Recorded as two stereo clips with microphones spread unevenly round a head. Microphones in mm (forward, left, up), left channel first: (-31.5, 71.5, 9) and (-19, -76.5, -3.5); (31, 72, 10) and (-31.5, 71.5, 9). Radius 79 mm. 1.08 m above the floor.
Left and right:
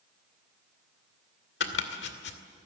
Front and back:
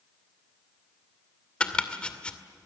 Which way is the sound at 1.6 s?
70° left.